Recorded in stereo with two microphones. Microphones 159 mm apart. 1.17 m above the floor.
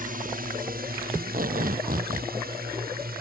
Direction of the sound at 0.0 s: 60° right (ahead or behind).